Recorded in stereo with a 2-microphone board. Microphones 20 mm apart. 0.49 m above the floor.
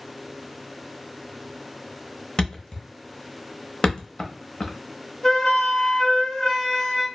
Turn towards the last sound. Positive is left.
turn(degrees=25)  # may be behind; listen again after turning